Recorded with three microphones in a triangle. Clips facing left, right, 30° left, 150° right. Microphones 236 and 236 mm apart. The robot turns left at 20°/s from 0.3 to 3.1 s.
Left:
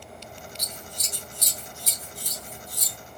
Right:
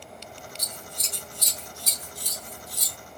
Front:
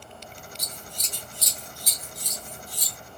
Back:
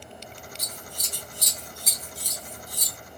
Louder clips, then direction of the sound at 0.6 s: Even, back 1 dB; 60° right.